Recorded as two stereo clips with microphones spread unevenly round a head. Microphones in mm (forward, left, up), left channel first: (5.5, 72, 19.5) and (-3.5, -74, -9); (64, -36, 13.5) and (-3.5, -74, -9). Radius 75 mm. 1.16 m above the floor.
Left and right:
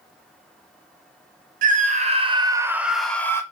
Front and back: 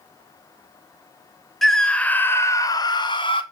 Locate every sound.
1.6 s a scream: 60° right, 0.9 m; by 3.4 s 10° left, 0.7 m